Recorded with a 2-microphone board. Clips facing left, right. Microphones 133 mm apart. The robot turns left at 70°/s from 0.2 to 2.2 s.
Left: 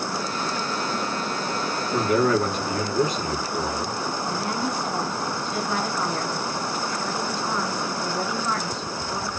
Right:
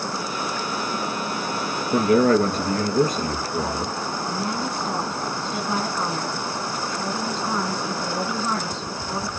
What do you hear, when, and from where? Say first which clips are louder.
1.9 s a man speaking: right 4 dB; 45° right (ahead or behind), 2.5 m
4.3 s a woman speaking: even; 25° right (ahead or behind), 1.5 m